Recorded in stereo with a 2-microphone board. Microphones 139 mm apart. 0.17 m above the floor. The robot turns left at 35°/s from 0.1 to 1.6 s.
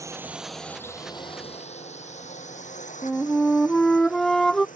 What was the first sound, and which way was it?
A drone, 20° right (ahead or behind).